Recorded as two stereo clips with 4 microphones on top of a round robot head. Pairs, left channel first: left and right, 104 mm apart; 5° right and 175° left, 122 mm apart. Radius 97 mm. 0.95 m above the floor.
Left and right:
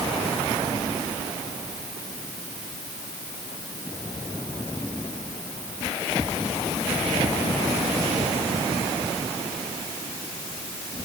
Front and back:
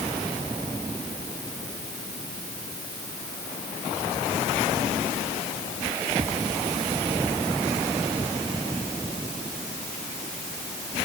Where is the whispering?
No whispering in this recording.